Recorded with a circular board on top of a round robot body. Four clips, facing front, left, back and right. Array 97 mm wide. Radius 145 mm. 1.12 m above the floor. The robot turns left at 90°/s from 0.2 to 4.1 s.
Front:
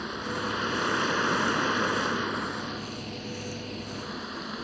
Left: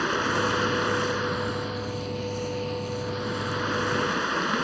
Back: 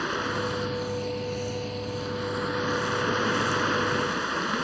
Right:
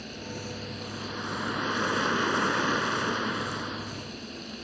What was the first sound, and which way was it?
Running water, 110° left.